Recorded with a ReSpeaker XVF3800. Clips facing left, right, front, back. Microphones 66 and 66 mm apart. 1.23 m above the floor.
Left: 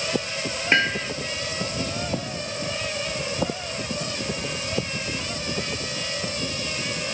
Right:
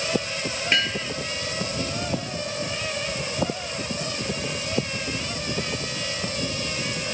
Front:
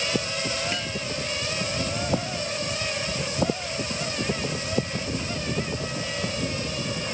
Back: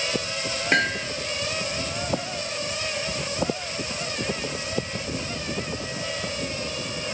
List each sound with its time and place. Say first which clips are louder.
0.7 s hammering: left 5 dB, back 8 dB; 150° left